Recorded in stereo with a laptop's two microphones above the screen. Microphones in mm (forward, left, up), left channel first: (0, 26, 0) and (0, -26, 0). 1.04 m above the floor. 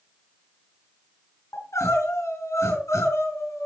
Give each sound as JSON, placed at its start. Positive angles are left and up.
{"t": 1.5, "sound": "crying", "side_deg": 70, "distance_m": 4.5}